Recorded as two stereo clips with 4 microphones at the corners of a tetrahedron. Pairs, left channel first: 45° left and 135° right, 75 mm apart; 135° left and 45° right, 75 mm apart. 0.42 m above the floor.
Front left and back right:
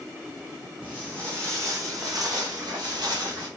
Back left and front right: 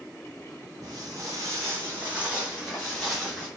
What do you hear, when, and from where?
0.8 s footsteps: 65° right, 1.0 m; by 3.5 s 140° right, 1.4 m